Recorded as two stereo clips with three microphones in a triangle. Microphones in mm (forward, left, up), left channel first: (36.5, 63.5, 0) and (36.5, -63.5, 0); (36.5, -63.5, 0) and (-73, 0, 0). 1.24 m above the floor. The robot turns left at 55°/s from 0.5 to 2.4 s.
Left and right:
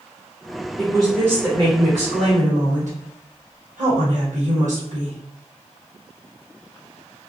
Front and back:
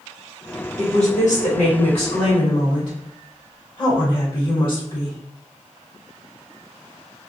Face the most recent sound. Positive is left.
turn(degrees=-80)